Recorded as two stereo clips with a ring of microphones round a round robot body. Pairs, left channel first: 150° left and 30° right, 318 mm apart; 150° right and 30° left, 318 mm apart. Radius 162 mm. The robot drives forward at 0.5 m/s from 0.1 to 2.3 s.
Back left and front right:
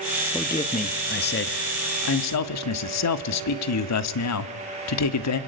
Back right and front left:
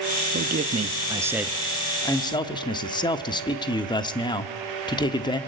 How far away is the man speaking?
About 1.1 m.